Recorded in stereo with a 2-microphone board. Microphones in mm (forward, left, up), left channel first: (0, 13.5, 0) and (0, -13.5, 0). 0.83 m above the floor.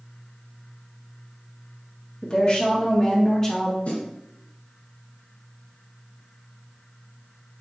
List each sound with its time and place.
2.2 s a woman speaking: 35° left (ahead or behind), 1.3 m; by 3.8 s 5° left (ahead or behind), 0.9 m
3.9 s a snare drum: 65° left (ahead or behind), 2.5 m